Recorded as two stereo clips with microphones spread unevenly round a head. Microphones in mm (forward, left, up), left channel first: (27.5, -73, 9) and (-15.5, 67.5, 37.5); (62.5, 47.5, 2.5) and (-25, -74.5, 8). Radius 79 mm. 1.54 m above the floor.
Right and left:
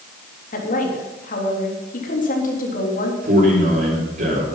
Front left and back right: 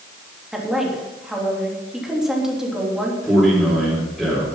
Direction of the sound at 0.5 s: 40° right.